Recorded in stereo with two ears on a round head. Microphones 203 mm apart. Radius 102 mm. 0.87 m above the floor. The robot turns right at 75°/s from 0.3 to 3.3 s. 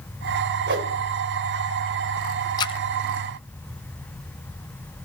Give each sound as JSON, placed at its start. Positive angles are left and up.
{"t": 0.7, "sound": "a whoosh", "side_deg": -50, "distance_m": 3.0}
{"t": 2.6, "sound": "a splash", "side_deg": 20, "distance_m": 0.6}